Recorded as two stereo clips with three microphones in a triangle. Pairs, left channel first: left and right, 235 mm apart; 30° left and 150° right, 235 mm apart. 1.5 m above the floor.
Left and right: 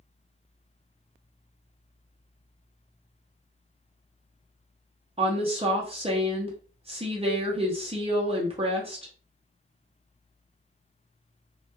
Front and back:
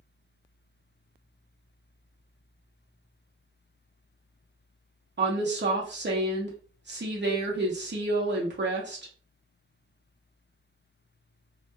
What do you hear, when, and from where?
5.2 s a woman speaking: 150° right, 0.5 m